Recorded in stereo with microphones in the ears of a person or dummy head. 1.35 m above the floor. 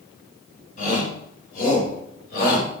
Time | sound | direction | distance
0.8 | a shout | 45° left (ahead or behind) | 5.5 m